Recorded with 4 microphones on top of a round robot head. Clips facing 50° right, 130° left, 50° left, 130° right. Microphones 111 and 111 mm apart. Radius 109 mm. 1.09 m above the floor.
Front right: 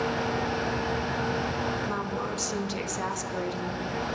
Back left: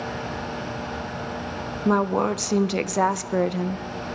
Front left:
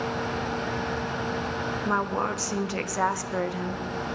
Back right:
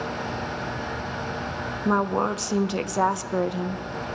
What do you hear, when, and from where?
1.9 s a woman speaking: 160° left, 0.6 m